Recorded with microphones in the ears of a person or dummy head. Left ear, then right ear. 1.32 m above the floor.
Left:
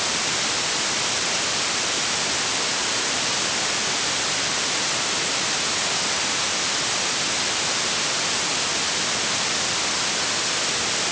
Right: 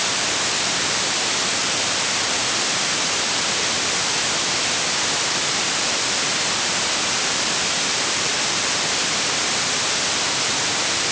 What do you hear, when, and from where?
Only background noise.